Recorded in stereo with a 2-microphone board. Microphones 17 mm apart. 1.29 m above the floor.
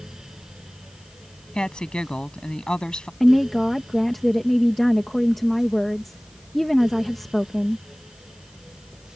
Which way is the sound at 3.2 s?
10° left (ahead or behind).